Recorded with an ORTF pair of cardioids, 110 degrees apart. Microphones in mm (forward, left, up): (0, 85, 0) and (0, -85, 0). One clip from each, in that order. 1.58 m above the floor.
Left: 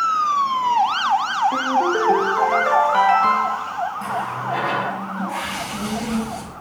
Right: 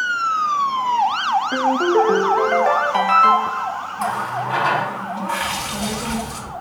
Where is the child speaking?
70° right, 3 m.